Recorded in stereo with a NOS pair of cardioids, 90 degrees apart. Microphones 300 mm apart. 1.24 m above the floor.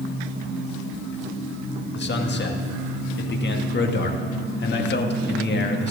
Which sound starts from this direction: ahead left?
A man speaking, at 1.9 s.